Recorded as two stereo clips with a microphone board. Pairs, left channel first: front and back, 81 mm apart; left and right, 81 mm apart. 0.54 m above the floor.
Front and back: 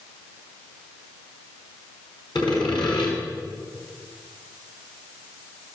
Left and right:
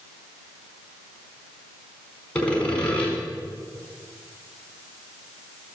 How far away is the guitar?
No guitar in this recording.